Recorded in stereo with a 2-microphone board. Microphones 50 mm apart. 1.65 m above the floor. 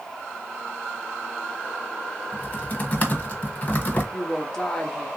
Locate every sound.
2.3 s typing on a keyboard: 30° left (ahead or behind), 0.9 m
4.1 s a woman speaking: 15° left (ahead or behind), 1.0 m